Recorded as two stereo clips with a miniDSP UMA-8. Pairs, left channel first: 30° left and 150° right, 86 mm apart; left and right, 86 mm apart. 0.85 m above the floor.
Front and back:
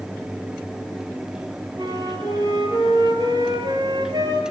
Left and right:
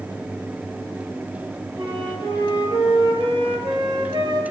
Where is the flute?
110° right, 7.5 m.